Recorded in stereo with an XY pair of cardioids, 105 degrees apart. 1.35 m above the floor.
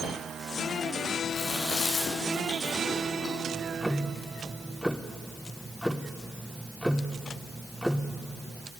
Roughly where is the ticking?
Ahead.